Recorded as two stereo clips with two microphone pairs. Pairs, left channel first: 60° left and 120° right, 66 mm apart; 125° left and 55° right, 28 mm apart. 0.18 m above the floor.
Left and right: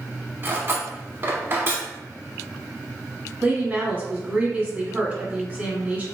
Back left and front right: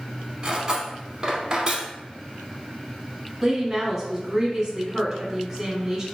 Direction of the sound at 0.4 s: 95° right.